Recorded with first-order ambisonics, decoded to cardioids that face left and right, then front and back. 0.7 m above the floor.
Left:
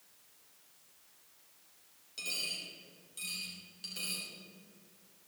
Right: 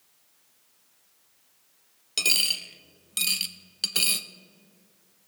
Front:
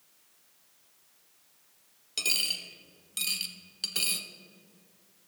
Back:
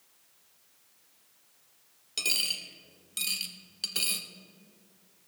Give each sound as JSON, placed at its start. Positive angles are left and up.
{"t": 2.2, "sound": "a dropped coin", "azimuth_deg": -90, "distance_m": 0.6}